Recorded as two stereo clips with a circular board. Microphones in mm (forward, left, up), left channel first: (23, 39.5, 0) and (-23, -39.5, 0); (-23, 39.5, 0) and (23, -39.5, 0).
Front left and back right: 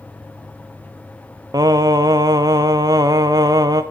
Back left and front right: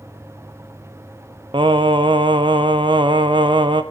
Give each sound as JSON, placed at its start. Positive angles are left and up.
{"t": 1.5, "sound": "singing", "azimuth_deg": -75, "distance_m": 0.8}